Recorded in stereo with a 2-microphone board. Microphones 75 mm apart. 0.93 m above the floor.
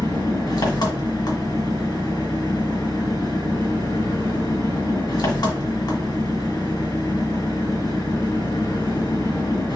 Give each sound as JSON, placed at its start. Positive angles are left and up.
{"t": 0.0, "sound": "an engine running", "side_deg": 65, "distance_m": 1.7}